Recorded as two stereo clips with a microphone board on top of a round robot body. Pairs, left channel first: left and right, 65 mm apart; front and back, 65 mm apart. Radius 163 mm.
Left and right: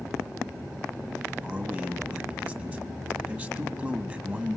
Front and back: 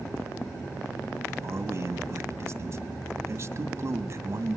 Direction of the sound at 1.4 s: 150° right.